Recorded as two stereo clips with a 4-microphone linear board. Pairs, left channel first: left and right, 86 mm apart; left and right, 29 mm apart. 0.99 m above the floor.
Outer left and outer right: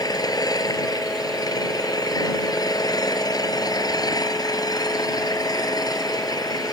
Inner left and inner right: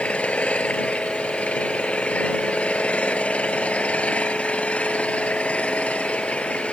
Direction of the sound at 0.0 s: 50° left (ahead or behind).